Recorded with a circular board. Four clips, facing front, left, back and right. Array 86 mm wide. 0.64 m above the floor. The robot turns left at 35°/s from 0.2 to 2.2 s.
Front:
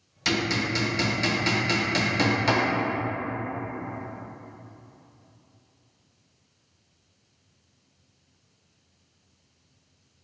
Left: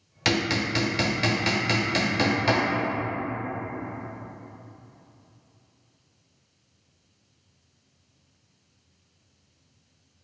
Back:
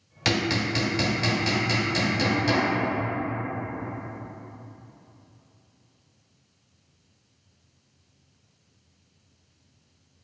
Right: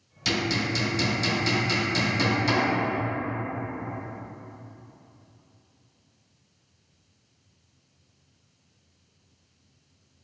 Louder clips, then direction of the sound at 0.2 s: Left 2 dB, back 1 dB; 120° left.